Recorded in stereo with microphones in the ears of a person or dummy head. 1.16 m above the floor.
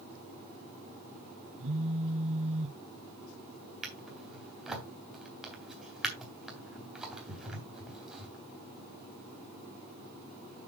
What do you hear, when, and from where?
1.6 s a phone buzzing: 30° right (ahead or behind), 1.0 m
3.8 s a drawer: 10° right (ahead or behind), 3 m